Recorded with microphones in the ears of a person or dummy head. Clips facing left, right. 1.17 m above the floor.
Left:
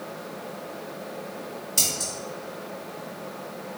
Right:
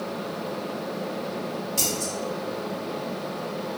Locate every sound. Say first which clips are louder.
1.8 s scissors: right 5 dB; 20° left (ahead or behind), 0.7 m